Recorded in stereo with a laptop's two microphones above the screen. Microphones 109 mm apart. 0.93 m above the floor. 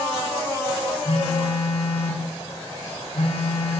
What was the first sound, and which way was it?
A phone buzzing, 75° left (ahead or behind).